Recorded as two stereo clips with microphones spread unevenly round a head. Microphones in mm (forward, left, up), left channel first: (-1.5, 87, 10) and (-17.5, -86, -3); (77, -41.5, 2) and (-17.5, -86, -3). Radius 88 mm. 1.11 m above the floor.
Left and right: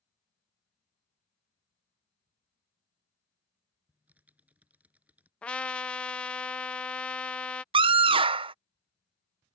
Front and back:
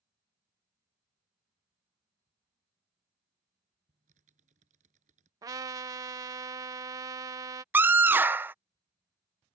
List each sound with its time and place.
3.9 s typing on a keyboard: straight behind
5.4 s a trumpet: 170° left
7.7 s a scream: 105° right